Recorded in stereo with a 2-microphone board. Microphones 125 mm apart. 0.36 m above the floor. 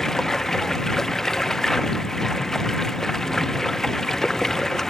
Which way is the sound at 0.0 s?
5° left (ahead or behind).